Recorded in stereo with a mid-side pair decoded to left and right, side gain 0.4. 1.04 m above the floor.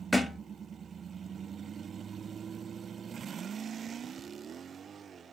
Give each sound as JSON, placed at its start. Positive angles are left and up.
{"t": 0.1, "sound": "a thud", "azimuth_deg": 10, "distance_m": 1.0}